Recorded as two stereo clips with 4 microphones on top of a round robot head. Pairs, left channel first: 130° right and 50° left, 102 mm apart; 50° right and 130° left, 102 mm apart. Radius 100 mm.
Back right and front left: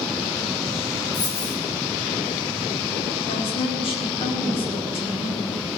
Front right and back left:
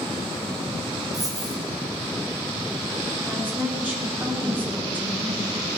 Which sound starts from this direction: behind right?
A woman speaking, at 3.2 s.